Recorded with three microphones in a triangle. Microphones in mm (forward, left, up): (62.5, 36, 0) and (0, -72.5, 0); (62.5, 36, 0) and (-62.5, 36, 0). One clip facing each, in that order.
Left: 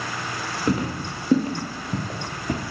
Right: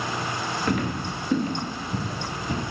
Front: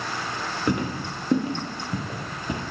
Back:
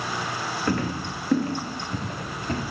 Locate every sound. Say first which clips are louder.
0.7 s footsteps: left 4 dB, front 1 dB; 50° left, 1.6 m; by 2.6 s 75° left, 2.5 m